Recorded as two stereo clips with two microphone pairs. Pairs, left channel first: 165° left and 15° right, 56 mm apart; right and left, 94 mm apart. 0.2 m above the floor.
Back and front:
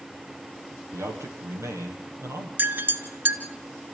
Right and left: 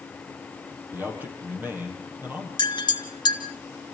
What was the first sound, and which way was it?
A man speaking, 20° left.